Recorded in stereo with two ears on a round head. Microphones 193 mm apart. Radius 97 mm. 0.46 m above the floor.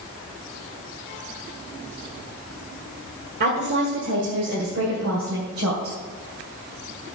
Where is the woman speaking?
50° right (ahead or behind), 1.6 m; by 6.0 s 65° right (ahead or behind), 3 m.